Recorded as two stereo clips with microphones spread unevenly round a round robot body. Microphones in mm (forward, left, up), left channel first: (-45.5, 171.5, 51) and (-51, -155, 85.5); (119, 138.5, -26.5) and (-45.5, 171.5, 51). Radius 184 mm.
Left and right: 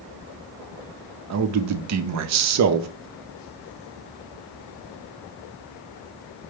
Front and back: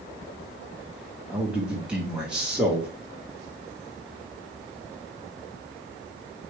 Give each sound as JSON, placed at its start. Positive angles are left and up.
{"t": 1.3, "sound": "a man speaking", "azimuth_deg": -75, "distance_m": 0.7}